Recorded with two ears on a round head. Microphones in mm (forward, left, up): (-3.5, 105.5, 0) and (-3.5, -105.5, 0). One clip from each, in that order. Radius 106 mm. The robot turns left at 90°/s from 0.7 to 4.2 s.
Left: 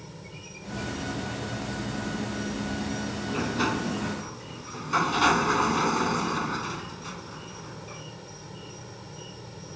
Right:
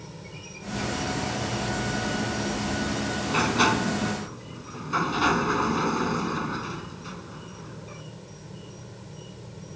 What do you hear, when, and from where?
0.0 s an insect: straight ahead; by 9.8 s 45° left
3.3 s a sliding door: 120° right; by 8.0 s 160° left